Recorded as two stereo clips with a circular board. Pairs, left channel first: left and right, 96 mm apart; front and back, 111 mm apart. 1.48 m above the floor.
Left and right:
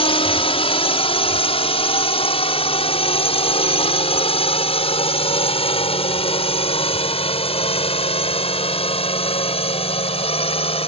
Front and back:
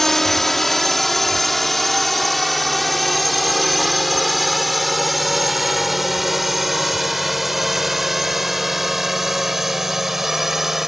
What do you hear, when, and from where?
0.0 s a drone: 90° left; by 10.9 s 95° left